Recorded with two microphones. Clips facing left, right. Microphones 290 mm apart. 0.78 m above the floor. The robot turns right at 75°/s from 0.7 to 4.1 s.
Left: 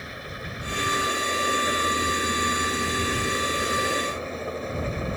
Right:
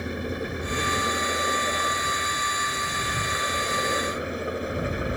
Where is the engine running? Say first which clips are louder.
Right 10 dB; 60° right; by 5.2 s 165° right.